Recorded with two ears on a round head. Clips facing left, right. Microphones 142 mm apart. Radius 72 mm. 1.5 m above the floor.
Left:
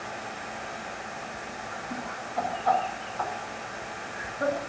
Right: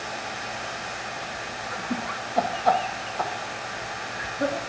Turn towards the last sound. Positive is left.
turn(degrees=-15)  # may be behind; listen again after turning